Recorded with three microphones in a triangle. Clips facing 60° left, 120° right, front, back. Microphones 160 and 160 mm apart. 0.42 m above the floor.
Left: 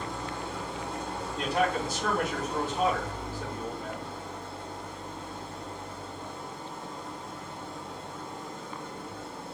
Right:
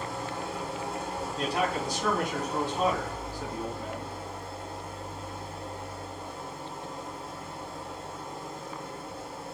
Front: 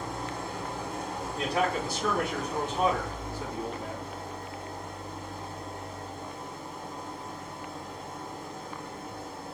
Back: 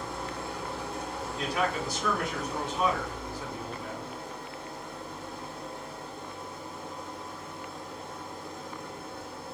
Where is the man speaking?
25° right, 3.5 m.